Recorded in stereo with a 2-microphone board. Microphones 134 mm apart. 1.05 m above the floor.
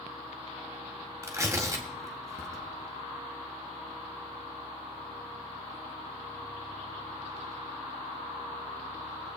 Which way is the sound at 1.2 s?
25° right (ahead or behind).